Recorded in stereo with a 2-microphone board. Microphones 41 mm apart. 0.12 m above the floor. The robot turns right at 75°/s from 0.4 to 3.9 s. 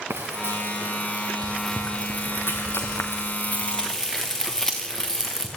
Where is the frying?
85° right, 3.5 m; by 5.5 s 15° left (ahead or behind), 3.5 m.